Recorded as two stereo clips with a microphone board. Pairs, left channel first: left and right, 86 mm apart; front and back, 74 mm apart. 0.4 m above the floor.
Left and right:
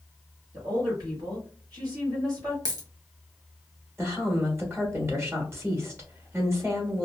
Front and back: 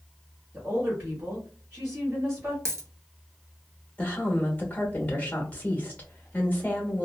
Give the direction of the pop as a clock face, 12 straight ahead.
I don't hear a pop.